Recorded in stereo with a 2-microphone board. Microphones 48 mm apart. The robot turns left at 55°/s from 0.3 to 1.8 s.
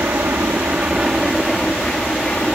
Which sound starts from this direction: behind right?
An aircraft, at 0.0 s.